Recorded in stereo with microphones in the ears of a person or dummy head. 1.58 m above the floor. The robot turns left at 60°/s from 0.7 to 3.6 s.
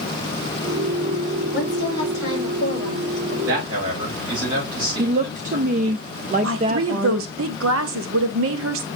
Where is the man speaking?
20° right (ahead or behind), 6 m; by 6.0 s 30° right (ahead or behind), 6 m.